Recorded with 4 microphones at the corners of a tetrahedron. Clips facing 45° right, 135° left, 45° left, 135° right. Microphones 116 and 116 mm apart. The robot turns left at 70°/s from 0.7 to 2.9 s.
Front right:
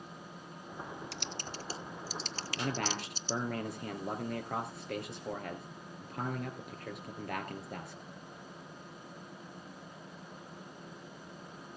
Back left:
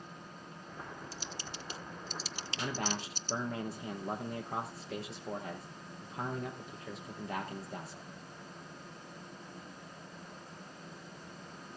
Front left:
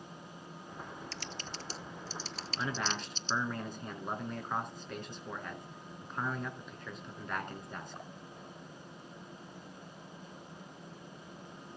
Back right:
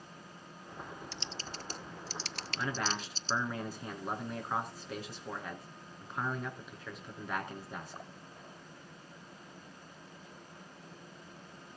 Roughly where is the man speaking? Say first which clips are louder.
Front right 1 dB, back right 1 dB; ahead right.